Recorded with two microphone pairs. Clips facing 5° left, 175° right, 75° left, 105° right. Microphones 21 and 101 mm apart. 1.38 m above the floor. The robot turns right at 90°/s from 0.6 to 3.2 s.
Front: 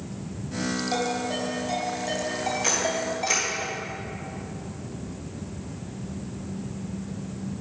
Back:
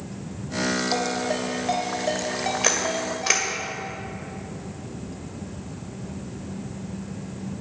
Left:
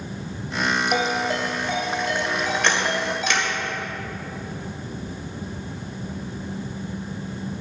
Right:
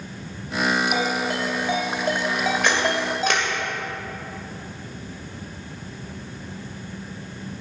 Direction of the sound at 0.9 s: 100° left.